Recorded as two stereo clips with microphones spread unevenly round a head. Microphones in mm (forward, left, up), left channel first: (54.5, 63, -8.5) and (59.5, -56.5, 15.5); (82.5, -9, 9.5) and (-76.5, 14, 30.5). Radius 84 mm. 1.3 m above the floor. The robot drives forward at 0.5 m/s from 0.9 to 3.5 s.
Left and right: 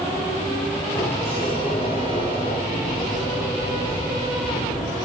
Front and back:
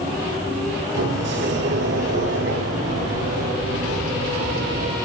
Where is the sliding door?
150° left, 8 m; by 5.0 s 155° left, 9 m.